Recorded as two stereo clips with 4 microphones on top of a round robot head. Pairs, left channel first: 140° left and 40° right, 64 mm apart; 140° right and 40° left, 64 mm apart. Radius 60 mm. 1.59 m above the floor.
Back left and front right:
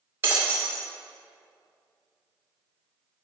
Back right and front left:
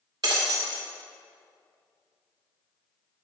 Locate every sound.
0.2 s breaking glass: 15° left, 1.5 m